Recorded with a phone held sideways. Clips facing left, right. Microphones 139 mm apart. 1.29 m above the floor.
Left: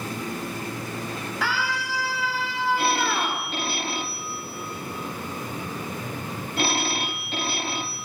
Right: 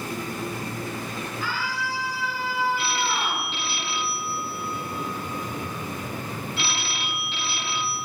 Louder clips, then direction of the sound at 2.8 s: Left 3 dB; 45° left (ahead or behind).